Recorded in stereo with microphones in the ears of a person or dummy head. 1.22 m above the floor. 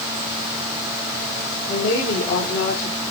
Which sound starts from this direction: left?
A woman speaking, at 1.7 s.